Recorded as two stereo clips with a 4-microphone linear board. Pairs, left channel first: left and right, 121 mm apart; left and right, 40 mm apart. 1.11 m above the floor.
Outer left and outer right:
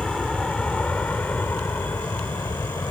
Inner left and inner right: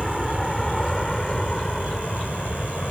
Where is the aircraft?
5° left (ahead or behind); by 2.9 s 20° left (ahead or behind).